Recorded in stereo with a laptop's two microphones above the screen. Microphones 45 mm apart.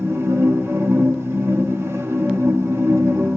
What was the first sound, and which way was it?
A machine running, 80° right.